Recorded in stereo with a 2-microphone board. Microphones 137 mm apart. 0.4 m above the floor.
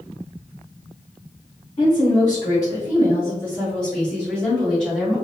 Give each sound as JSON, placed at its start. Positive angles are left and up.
{"t": 1.8, "sound": "a woman speaking", "side_deg": 40, "distance_m": 1.2}